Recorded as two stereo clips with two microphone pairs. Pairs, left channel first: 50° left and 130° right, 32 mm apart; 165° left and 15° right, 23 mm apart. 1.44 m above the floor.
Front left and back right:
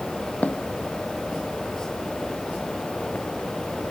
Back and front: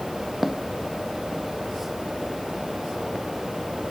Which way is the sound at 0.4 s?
65° left.